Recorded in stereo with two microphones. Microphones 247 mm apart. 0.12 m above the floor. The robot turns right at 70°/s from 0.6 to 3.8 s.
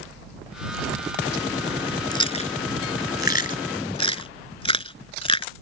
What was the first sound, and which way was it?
Chewing, 15° left (ahead or behind).